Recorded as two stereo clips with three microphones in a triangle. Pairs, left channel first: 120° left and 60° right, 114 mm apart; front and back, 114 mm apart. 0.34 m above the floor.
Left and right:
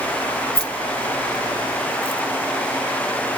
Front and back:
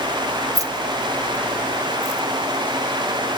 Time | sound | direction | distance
0.6 | keys jangling | 125° left | 1.5 m